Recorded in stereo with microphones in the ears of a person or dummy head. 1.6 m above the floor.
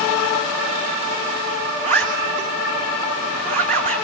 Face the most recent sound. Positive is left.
turn(degrees=-40)  # may be behind; listen again after turning